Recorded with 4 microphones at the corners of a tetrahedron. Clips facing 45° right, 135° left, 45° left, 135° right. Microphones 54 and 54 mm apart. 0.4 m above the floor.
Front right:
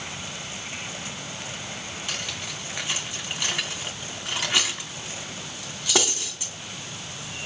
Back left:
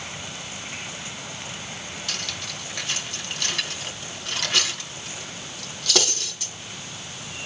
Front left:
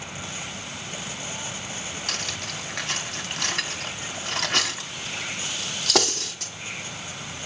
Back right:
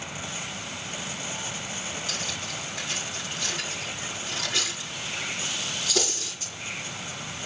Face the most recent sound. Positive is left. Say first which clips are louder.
# even, front left 1 dB
turn(degrees=25)